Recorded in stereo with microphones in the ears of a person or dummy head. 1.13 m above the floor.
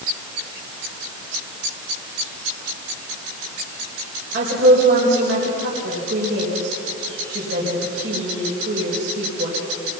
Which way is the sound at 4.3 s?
70° right (ahead or behind).